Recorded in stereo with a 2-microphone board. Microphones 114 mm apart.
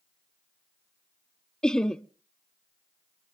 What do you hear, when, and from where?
1.6 s laughter: 5° left (ahead or behind), 0.6 m